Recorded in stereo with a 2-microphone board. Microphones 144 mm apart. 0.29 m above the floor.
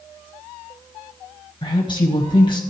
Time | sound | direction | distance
1.6 | a woman speaking | 35° left (ahead or behind) | 1.3 m